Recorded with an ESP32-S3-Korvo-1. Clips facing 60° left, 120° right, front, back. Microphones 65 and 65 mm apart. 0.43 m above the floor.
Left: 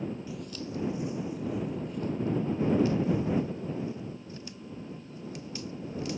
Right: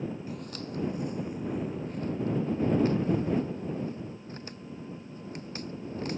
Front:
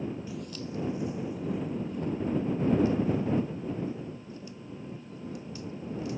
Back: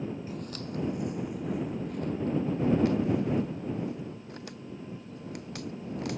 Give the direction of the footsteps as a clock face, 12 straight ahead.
5 o'clock.